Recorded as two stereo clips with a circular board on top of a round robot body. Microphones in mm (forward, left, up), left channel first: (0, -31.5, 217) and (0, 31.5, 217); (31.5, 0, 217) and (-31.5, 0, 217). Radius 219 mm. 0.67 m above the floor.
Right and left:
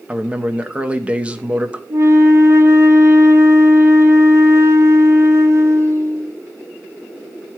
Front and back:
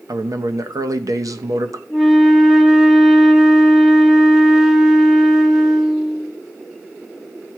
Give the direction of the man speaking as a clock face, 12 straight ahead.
7 o'clock.